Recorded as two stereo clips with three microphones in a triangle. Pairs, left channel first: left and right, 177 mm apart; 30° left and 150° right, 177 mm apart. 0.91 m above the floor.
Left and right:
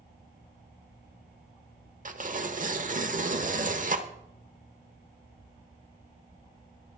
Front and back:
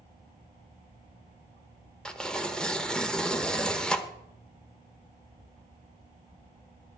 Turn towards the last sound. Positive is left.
turn(degrees=-55)